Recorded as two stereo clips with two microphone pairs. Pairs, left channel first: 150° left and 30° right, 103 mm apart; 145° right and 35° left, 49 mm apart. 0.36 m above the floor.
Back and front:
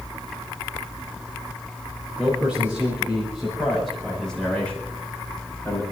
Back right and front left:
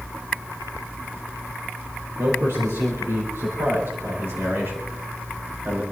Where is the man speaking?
45° left, 6.5 m; by 5.8 s 85° left, 5 m.